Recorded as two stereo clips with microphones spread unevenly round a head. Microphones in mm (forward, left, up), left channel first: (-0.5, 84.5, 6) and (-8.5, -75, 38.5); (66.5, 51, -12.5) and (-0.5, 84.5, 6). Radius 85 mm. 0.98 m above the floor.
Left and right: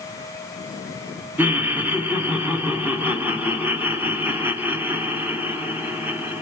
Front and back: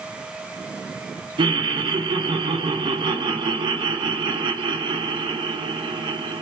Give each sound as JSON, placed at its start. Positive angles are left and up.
{"t": 1.4, "sound": "laughter", "azimuth_deg": 180, "distance_m": 1.2}